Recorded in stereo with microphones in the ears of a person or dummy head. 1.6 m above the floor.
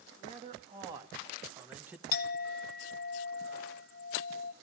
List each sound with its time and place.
0.2 s a man speaking: 40° right (ahead or behind), 2.5 m; by 2.0 s 10° right (ahead or behind), 0.9 m
2.1 s a clink: 55° left (ahead or behind), 0.9 m